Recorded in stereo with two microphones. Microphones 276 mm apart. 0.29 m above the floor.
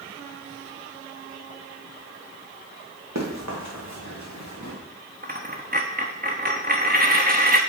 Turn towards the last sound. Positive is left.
turn(degrees=-35)  # may be behind; listen again after turning